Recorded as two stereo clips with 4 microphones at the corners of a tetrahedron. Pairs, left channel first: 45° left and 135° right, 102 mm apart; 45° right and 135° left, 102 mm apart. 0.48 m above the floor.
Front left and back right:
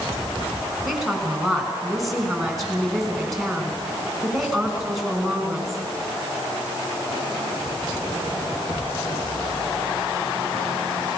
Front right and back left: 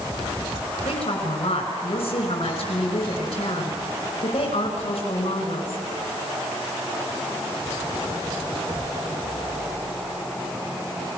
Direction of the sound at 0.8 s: 45° right.